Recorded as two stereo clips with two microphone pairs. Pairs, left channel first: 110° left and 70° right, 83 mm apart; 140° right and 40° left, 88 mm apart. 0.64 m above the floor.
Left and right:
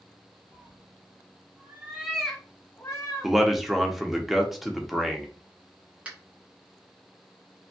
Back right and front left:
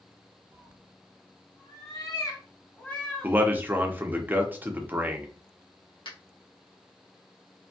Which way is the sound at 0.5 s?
105° right.